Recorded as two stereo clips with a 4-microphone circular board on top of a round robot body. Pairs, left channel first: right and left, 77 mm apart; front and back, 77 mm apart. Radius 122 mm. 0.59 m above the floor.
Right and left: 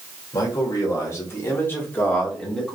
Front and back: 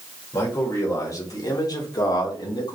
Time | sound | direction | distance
0.3 | a man speaking | 50° right | 2.5 m